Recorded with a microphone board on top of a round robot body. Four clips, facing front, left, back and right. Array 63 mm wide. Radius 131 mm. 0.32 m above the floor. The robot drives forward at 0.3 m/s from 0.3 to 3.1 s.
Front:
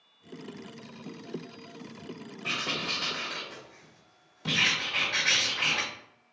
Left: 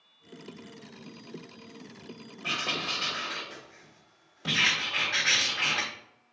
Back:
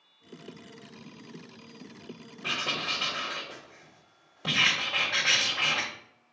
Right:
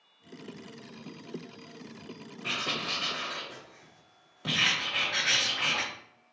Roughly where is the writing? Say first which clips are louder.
Left 1 dB, back 1 dB; behind.